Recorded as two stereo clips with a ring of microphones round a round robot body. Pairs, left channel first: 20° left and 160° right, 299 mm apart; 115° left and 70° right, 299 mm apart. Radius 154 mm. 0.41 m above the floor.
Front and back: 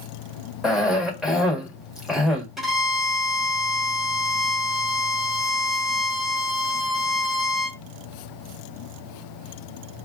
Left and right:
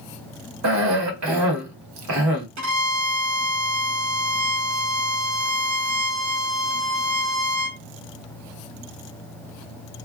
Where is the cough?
70° right, 1.6 m.